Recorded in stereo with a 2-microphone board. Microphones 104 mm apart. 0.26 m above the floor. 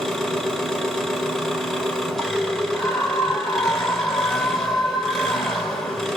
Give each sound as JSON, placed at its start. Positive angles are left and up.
{"t": 0.0, "sound": "an engine running", "side_deg": 5, "distance_m": 1.0}
{"t": 2.7, "sound": "a scream", "side_deg": 35, "distance_m": 1.8}